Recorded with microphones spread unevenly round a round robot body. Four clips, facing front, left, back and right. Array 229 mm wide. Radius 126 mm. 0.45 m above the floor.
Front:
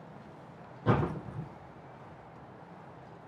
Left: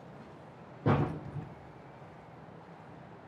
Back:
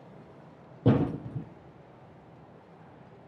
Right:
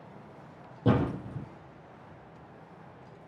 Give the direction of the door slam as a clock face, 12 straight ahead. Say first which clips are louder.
Right 3 dB, back 4 dB; 6 o'clock.